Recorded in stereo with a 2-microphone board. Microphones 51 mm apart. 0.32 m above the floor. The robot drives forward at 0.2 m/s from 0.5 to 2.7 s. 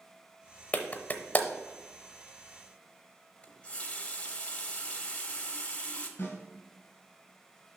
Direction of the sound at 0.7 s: 35° left (ahead or behind).